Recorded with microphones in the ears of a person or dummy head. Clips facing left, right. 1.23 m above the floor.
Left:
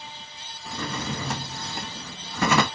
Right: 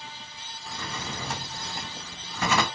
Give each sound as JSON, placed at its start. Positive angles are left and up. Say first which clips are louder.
{"t": 0.7, "sound": "a drawer", "louder": "left 6 dB", "side_deg": 50, "distance_m": 0.9}